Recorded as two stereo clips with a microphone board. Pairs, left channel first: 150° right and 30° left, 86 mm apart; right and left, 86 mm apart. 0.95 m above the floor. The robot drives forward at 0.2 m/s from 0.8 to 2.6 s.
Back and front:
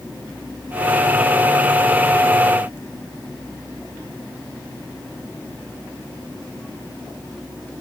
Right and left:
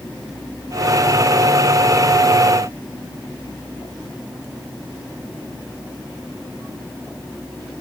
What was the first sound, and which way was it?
Only background noise.